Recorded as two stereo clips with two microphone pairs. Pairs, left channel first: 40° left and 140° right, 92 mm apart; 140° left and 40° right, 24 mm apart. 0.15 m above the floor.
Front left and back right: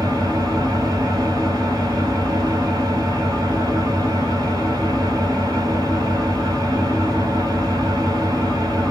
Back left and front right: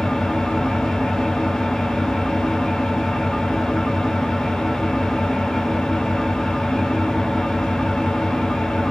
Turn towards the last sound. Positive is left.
turn(degrees=-170)